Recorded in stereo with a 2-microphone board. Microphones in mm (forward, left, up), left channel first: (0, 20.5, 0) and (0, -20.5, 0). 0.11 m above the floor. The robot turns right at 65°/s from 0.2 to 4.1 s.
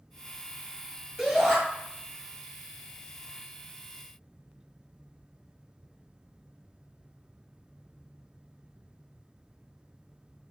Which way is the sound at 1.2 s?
5° left (ahead or behind).